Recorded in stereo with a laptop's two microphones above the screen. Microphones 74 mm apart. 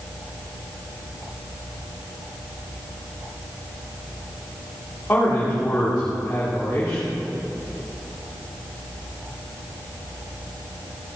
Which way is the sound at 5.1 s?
25° left (ahead or behind).